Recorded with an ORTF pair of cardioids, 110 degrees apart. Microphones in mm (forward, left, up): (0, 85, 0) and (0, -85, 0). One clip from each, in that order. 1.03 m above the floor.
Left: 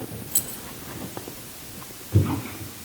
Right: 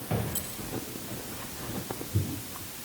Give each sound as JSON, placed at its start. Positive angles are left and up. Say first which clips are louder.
{"t": 0.3, "sound": "keys jangling", "louder": "left 6 dB", "azimuth_deg": 55, "distance_m": 2.5}